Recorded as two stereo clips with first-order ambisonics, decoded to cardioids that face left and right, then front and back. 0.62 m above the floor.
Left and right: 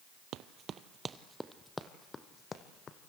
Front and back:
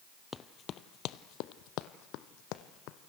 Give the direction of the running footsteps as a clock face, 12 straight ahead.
2 o'clock.